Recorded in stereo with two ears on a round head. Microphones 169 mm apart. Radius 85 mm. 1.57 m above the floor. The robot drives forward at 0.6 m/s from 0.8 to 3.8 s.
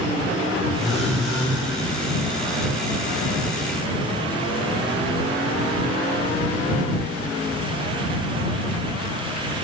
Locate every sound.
0.8 s a phone buzzing: centre (ahead or behind), 1.1 m